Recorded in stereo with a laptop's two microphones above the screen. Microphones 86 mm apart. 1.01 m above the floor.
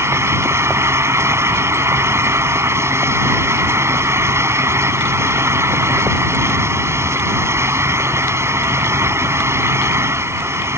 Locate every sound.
0.0 s a fan: 30° right (ahead or behind)